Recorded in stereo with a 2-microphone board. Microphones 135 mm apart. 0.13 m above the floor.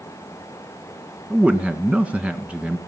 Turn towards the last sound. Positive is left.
turn(degrees=-10)  # may be behind; listen again after turning